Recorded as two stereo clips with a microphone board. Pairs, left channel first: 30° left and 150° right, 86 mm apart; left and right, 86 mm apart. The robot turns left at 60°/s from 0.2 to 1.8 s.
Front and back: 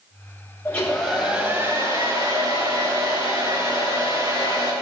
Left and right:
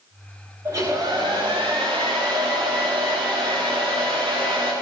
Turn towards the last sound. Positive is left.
turn(degrees=-110)